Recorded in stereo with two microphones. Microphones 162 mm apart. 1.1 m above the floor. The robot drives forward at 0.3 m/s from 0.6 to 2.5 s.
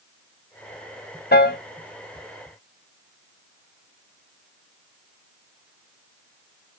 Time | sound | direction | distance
1.3 | a piano | 80° left | 0.6 m